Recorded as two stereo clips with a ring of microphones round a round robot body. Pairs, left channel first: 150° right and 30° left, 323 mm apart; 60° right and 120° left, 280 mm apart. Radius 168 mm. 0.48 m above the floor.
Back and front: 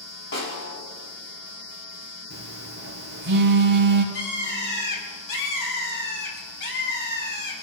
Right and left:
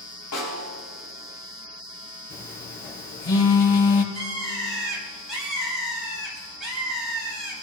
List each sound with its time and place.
0.3 s a snare drum: 100° right, 6 m
2.3 s a phone buzzing: 30° right, 4 m
4.1 s a bird: 150° right, 6.5 m